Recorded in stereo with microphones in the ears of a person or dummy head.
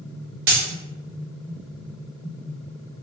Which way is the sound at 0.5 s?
40° right (ahead or behind).